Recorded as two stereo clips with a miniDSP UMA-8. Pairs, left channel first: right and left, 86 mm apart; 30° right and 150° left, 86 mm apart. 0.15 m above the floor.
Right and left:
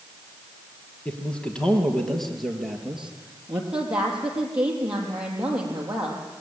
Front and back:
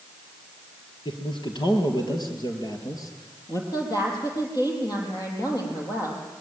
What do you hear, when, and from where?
1.1 s a man speaking: 20° right, 4 m; by 3.6 s 15° left, 3.5 m
3.7 s a woman speaking: 10° left, 5.5 m